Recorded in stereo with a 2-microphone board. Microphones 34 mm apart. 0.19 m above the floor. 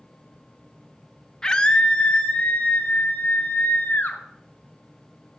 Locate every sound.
1.4 s a scream: 15° left (ahead or behind), 1.2 m; by 4.2 s 60° left (ahead or behind), 3 m